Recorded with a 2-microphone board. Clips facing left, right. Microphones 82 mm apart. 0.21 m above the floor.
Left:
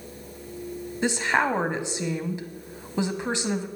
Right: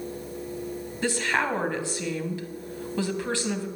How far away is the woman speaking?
About 1.1 m.